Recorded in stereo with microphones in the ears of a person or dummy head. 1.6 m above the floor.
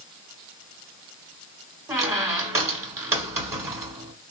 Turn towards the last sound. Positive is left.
turn(degrees=-20)  # may be behind; listen again after turning